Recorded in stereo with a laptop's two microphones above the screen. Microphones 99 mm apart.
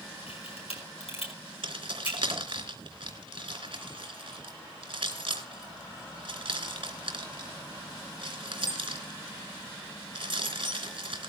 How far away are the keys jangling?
About 3 m.